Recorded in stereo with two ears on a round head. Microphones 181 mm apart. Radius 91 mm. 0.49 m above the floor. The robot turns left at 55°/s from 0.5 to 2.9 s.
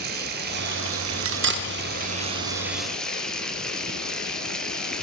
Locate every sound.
0.0 s running water: 50° right, 1.4 m; by 5.0 s 175° left, 1.4 m
1.2 s cutlery clinking: 65° right (ahead or behind), 0.8 m; by 1.7 s 50° right (ahead or behind), 0.8 m